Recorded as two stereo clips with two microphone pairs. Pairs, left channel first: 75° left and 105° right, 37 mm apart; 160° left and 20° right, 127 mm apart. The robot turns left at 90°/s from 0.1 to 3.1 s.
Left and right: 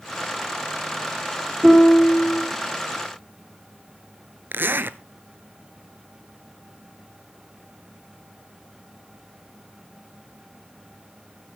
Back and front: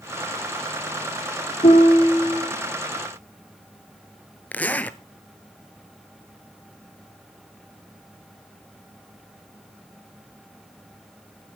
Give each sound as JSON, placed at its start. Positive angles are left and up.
{"t": 1.6, "sound": "a piano", "azimuth_deg": -175, "distance_m": 2.0}
{"t": 4.5, "sound": "a zipper", "azimuth_deg": -125, "distance_m": 0.6}